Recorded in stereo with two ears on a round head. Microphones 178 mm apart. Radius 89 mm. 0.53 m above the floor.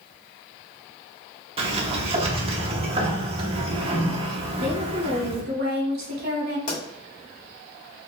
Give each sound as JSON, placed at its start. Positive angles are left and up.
{"t": 1.6, "sound": "a sliding door", "side_deg": -30, "distance_m": 0.7}
{"t": 4.6, "sound": "a woman speaking", "side_deg": -55, "distance_m": 1.8}
{"t": 6.7, "sound": "a pop", "side_deg": 40, "distance_m": 1.9}